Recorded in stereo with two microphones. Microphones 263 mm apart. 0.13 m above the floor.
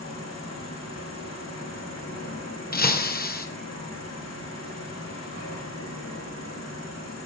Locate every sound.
0.0 s an insect: 75° left (ahead or behind), 7 m
2.7 s breaking glass: 35° left (ahead or behind), 1.6 m